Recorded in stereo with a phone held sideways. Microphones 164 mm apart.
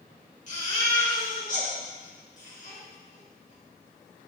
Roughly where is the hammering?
I don't hear hammering.